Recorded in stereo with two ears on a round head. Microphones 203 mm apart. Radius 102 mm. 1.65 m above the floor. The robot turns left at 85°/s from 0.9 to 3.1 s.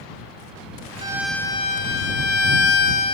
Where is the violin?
155° right; by 3.2 s 25° left.